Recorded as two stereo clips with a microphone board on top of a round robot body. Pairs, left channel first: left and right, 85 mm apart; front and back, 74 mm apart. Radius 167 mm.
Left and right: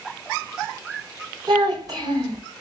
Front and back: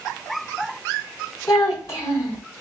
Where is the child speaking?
50° right, 2.5 m.